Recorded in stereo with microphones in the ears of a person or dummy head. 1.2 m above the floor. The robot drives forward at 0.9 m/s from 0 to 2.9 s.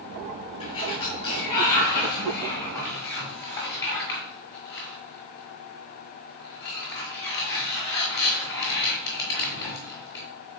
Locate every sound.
0.6 s a sliding door: 30° left (ahead or behind), 4 m; by 10.3 s 20° left (ahead or behind), 6 m